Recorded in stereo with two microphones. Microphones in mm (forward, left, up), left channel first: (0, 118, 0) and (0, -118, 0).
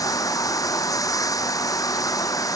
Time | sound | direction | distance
0.0 | running water | 15° left (ahead or behind) | ?